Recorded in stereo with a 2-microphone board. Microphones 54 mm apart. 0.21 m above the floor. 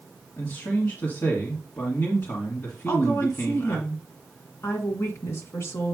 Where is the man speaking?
40° left (ahead or behind), 1.8 m.